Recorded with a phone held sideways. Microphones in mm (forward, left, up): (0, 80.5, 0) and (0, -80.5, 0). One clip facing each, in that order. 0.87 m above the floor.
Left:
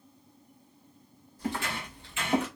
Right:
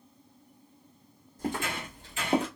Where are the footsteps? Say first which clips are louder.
Right 1 dB; 50° right (ahead or behind), 1.5 m; by 2.5 s 30° right (ahead or behind), 0.9 m.